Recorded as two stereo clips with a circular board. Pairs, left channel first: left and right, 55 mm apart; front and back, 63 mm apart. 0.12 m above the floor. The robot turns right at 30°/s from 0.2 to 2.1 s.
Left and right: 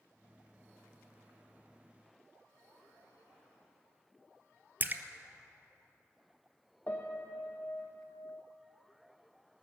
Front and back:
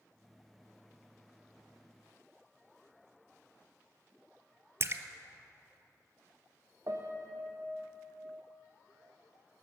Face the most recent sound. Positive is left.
turn(degrees=145)